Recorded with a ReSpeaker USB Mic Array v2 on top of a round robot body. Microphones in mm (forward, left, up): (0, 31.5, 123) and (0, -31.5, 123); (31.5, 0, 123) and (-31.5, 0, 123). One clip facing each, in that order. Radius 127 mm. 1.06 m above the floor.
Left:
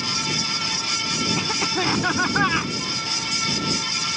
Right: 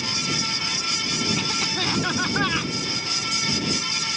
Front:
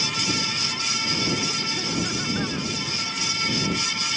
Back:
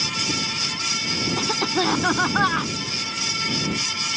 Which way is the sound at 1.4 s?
165° left.